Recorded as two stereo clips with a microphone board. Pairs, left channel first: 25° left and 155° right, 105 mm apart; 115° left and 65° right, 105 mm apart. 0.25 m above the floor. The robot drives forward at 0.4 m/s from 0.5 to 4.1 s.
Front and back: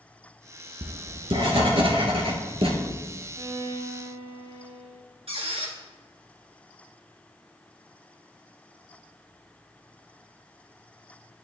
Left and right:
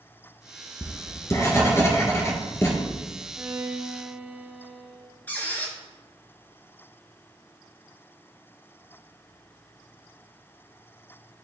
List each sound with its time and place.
0.8 s writing: 170° left, 1.0 m; by 2.7 s 175° left, 1.7 m
3.4 s a violin: 130° right, 0.9 m; by 5.0 s 145° right, 1.1 m
5.3 s a squeak: 175° right, 1.6 m